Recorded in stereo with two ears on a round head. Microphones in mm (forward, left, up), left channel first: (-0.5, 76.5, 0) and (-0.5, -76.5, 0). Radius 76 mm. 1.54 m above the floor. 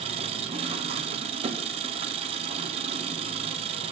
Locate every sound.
0.0 s an engine running: 40° right (ahead or behind), 0.7 m